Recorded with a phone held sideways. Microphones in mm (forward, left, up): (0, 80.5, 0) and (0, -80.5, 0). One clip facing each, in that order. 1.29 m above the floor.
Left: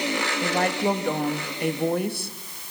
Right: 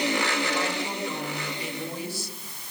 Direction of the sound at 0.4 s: 60° left (ahead or behind).